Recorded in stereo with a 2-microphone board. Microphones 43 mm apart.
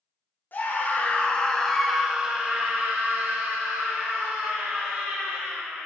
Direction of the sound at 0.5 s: 45° left (ahead or behind).